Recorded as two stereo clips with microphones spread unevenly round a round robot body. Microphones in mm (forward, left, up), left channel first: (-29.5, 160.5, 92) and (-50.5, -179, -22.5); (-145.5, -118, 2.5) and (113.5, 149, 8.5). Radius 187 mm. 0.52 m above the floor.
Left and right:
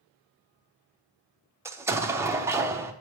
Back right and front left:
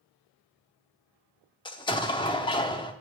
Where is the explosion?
70° right, 0.6 m.